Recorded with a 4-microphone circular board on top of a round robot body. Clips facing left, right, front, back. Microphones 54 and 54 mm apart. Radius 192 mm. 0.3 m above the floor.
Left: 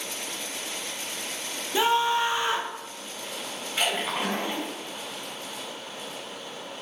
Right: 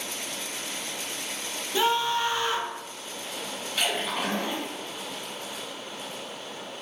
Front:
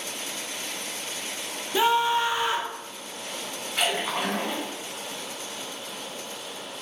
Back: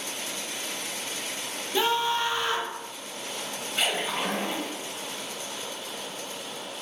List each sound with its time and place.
1.7 s a scream: 55° left, 0.9 m
3.8 s a splash: 30° left, 2 m